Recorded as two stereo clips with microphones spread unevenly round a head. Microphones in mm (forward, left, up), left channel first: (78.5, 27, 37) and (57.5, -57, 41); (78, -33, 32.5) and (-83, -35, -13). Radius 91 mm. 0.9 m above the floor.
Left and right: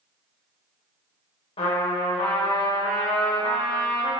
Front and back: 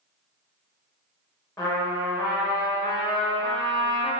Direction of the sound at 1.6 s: 80° left.